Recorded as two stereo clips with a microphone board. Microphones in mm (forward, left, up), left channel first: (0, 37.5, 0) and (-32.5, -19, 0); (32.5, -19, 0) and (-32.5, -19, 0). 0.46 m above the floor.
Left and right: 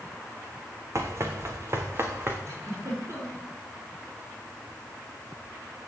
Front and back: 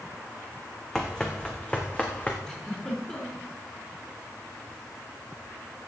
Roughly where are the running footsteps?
Right.